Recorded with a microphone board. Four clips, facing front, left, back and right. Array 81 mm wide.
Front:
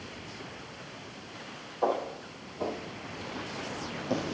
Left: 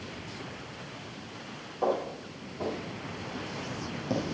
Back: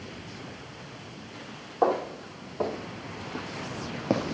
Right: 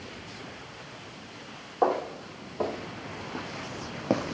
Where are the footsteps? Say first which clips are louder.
Right 3 dB, back 4 dB; 135° right, 3.5 m; by 4.3 s 125° right, 2 m.